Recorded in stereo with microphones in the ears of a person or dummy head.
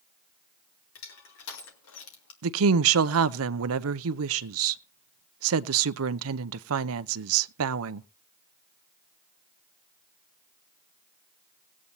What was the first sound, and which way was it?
Crushing, 80° left.